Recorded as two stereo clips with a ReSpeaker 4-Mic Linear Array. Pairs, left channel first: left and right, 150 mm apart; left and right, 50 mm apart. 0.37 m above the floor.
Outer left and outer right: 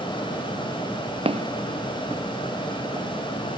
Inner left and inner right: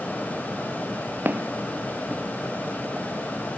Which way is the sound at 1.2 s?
40° right (ahead or behind).